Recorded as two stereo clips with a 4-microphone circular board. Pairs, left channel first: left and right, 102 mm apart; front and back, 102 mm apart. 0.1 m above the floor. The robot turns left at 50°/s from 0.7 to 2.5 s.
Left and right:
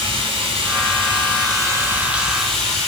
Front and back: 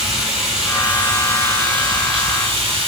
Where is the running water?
95° right, 1.0 m; by 2.9 s 175° left, 1.0 m.